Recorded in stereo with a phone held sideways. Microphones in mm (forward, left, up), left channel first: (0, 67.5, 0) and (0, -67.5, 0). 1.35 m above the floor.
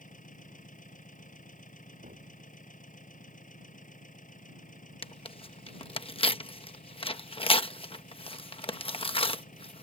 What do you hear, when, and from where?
0.0 s an engine running: 75° left (ahead or behind)
2.0 s a thud: 85° right
5.0 s tearing paper: 40° left (ahead or behind)